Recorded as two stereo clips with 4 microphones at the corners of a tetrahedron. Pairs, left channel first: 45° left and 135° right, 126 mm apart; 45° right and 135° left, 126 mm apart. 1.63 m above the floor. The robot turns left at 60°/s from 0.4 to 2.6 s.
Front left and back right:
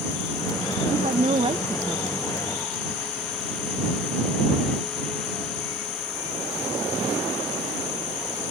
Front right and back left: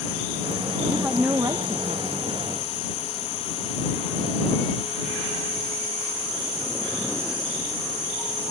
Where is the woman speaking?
130° right; by 2.1 s 155° left.